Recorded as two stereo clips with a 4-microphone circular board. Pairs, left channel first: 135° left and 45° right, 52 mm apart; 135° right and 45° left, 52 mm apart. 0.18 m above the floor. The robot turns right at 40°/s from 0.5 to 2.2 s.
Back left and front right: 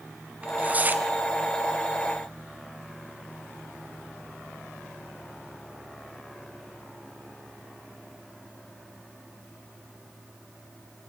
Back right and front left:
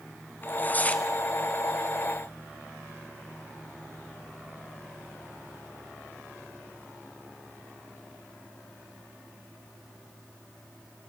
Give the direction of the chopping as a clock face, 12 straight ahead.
No chopping in this recording.